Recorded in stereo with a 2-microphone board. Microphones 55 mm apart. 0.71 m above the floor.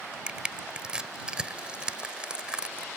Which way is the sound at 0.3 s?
20° right (ahead or behind).